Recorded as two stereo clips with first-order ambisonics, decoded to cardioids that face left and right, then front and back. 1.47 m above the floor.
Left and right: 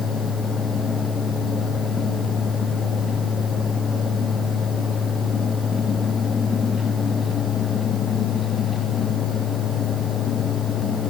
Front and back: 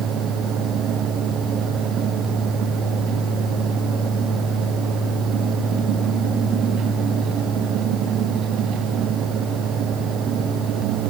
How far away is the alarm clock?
No alarm clock in this recording.